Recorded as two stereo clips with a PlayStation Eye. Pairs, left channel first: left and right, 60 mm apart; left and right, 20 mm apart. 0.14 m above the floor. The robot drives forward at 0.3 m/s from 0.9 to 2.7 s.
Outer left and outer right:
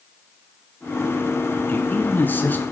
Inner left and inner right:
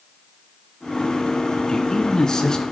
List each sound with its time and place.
1.7 s a man speaking: 35° left (ahead or behind), 1.5 m; by 2.6 s 30° left (ahead or behind), 1.6 m